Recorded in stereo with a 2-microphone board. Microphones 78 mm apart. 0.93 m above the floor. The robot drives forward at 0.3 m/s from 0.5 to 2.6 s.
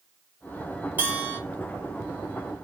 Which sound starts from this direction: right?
A bell, at 1.0 s.